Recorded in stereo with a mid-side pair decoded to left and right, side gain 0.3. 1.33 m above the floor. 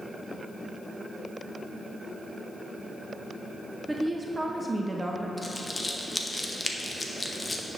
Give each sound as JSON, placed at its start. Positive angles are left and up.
{"t": 3.9, "sound": "a woman speaking", "azimuth_deg": -25, "distance_m": 0.7}
{"t": 5.4, "sound": "crumpling", "azimuth_deg": 25, "distance_m": 0.8}